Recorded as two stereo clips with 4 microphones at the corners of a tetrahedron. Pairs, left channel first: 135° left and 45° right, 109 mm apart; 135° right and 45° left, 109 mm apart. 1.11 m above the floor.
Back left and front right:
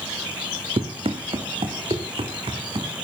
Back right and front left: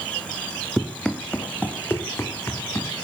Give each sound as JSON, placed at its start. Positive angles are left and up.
{"t": 0.8, "sound": "running footsteps", "azimuth_deg": -45, "distance_m": 2.0}